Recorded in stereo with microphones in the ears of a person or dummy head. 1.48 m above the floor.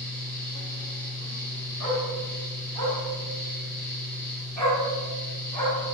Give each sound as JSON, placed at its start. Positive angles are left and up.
{"t": 0.0, "sound": "a fan", "side_deg": 20, "distance_m": 1.0}
{"t": 1.8, "sound": "a dog barking", "side_deg": 10, "distance_m": 1.8}